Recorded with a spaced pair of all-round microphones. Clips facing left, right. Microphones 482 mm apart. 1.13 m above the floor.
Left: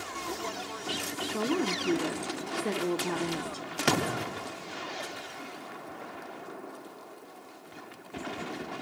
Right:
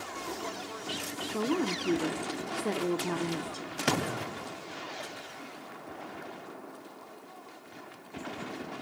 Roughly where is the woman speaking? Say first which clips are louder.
Even; centre.